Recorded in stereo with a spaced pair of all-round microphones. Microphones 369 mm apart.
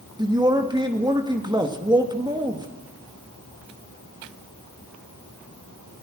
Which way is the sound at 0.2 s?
10° right (ahead or behind).